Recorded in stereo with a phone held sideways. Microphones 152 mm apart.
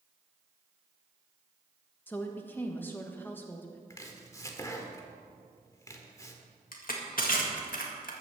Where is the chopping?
20° left (ahead or behind), 1.4 m.